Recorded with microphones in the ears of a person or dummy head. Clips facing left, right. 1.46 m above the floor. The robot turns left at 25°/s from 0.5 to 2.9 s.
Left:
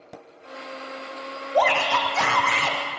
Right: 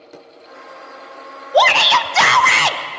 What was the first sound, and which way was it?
A shout, 70° right.